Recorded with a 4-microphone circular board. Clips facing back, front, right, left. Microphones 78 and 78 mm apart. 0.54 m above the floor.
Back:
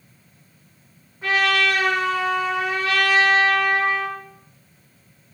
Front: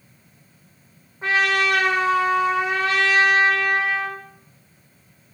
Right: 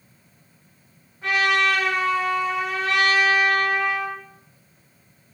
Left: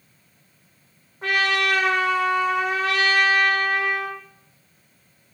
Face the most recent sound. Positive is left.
turn(degrees=65)